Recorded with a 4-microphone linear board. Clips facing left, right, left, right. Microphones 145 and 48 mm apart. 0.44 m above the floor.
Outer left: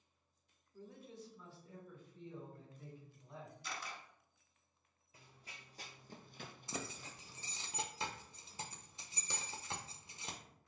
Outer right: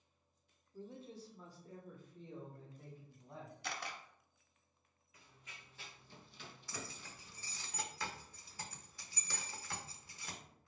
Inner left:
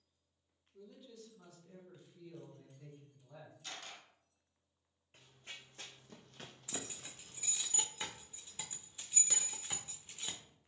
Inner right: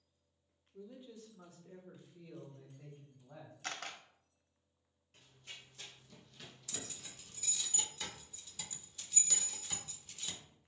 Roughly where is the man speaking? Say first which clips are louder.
Outer right 3 dB, inner right 3 dB; right.